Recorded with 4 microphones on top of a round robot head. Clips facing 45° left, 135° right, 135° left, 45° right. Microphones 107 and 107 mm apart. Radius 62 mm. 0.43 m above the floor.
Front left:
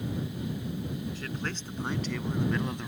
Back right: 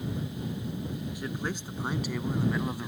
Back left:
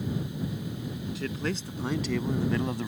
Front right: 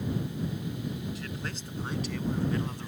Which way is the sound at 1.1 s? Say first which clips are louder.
Back right 2 dB, back left 6 dB; 150° left.